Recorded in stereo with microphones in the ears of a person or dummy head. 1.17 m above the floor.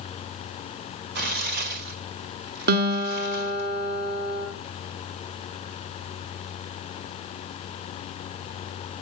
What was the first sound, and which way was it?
Tearing paper, 55° right (ahead or behind).